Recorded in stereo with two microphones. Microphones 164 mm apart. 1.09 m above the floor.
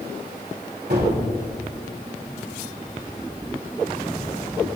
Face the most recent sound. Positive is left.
turn(degrees=-80)